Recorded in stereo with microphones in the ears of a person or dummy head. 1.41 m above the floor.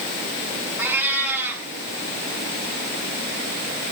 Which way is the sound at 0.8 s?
10° right (ahead or behind).